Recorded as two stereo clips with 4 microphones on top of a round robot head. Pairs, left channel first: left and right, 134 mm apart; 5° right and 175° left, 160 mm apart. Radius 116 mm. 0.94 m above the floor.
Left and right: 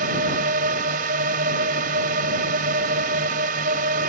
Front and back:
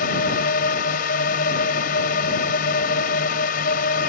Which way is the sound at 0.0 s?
55° right.